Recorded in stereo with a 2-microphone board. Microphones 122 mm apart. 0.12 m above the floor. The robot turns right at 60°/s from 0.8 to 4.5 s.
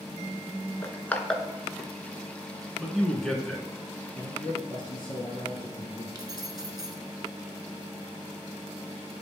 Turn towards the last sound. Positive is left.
turn(degrees=-35)  # may be behind; listen again after turning